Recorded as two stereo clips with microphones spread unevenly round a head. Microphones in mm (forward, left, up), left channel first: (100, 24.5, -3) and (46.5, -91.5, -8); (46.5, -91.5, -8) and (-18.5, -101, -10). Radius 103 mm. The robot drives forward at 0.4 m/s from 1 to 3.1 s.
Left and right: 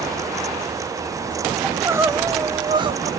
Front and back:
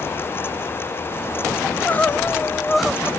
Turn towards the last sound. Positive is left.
turn(degrees=-100)